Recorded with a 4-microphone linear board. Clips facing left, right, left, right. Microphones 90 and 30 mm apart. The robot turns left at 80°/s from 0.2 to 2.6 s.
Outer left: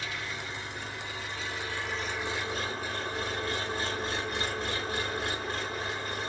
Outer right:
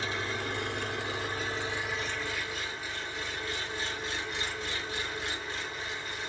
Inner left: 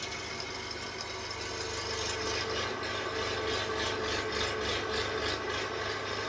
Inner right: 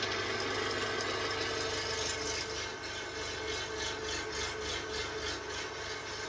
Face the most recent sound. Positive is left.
turn(degrees=130)